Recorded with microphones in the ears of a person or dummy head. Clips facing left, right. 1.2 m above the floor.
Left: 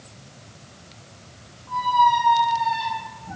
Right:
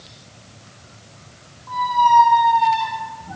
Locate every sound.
1.7 s a squeak: 65° right (ahead or behind), 1.6 m